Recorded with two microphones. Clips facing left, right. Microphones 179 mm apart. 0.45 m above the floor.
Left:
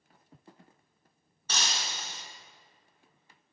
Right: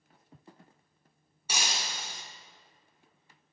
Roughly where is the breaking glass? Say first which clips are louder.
Even; centre.